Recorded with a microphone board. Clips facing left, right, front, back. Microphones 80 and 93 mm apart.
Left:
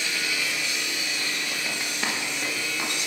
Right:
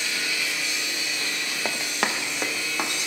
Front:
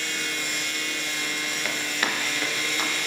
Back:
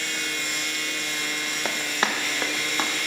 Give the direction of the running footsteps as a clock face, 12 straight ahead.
4 o'clock.